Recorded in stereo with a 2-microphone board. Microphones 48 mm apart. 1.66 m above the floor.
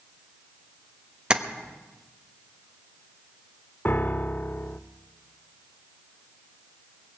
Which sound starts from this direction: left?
A piano, at 3.9 s.